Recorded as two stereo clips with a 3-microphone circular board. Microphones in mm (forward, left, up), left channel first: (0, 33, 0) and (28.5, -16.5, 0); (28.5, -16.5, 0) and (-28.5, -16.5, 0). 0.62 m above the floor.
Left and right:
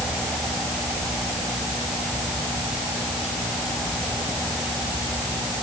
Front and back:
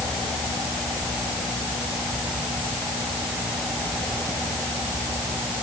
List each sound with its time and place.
Only background noise.